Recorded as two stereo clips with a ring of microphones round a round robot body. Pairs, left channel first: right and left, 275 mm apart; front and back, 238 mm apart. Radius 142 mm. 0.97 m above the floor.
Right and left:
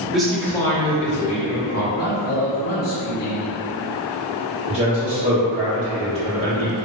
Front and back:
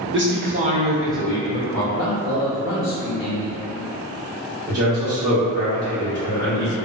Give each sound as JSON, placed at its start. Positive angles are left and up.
{"t": 0.1, "sound": "a man speaking", "azimuth_deg": 180, "distance_m": 0.8}
{"t": 1.9, "sound": "a man speaking", "azimuth_deg": -35, "distance_m": 0.5}
{"t": 4.7, "sound": "a man speaking", "azimuth_deg": 130, "distance_m": 1.0}